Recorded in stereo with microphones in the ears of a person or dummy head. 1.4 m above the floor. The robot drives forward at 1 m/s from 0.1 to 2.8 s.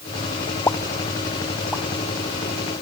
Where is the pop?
10° left (ahead or behind), 0.5 m; by 1.8 s 5° left (ahead or behind), 1.6 m.